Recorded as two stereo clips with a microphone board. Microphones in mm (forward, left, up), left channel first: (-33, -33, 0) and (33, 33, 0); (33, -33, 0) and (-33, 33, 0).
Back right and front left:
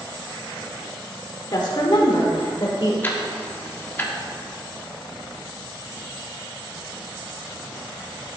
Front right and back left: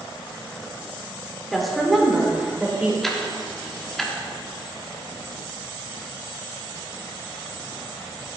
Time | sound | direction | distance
1.5 | a woman speaking | 130° right | 1.9 m
3.0 | ticking | 125° right | 1.1 m